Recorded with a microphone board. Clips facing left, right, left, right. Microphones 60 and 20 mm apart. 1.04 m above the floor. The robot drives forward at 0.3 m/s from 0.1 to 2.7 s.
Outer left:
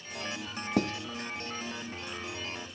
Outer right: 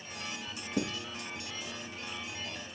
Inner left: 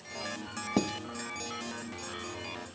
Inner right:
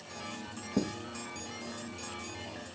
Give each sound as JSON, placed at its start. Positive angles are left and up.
{"t": 0.8, "sound": "writing", "side_deg": 70, "distance_m": 2.0}